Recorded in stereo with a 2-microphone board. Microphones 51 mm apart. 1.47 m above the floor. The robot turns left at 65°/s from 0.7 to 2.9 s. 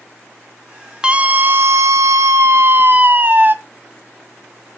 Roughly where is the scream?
Ahead.